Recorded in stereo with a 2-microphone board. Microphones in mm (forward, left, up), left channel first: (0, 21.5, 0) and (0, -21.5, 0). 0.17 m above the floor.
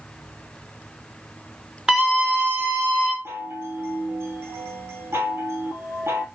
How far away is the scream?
About 1.5 m.